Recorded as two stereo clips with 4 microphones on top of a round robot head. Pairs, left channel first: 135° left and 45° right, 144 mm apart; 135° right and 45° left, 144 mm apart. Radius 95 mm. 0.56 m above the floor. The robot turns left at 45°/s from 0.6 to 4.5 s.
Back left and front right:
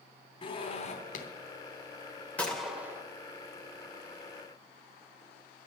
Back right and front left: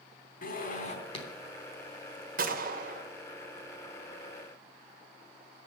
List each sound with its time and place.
0.4 s a zipper: 165° right, 3 m; by 1.3 s 165° left, 3 m
2.4 s a gunshot: 60° left, 2 m; by 3.0 s 30° left, 2 m